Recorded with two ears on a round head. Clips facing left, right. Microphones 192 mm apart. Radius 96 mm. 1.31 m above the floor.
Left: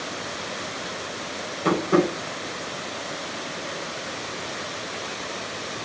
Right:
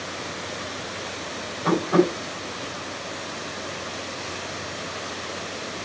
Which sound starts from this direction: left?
Tapping, at 1.6 s.